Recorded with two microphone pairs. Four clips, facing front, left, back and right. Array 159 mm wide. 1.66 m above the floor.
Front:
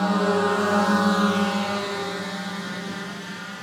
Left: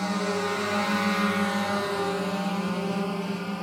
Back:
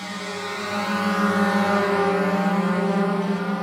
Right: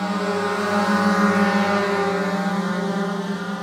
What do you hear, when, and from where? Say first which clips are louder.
0.0 s a drone: right 5 dB, front 10 dB; 15° right; by 3.6 s 170° right